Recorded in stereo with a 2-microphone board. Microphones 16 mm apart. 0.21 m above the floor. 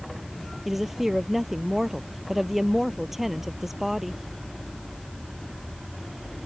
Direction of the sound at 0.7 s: 10° right (ahead or behind).